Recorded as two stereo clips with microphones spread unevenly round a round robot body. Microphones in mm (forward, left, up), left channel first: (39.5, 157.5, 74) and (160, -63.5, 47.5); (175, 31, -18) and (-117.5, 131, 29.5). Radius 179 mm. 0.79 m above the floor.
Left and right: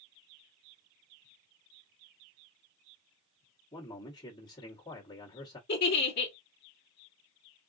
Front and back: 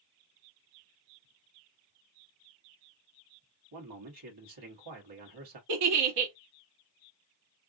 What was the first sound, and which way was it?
A man speaking, 165° right.